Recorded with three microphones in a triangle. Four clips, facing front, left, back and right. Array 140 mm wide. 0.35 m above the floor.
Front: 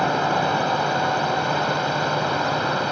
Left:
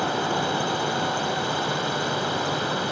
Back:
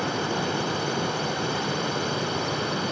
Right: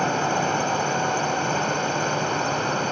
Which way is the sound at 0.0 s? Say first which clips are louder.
Right 2 dB, front 7 dB; 15° right.